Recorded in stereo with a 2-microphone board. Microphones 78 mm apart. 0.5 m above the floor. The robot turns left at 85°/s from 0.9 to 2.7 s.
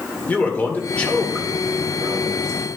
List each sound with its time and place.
0.3 s a man speaking: 30° left, 1.9 m; by 2.7 s 125° right, 1.9 m